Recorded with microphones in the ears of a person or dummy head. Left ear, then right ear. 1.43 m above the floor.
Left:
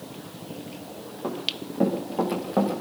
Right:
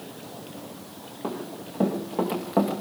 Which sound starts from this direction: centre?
Running footsteps, at 1.2 s.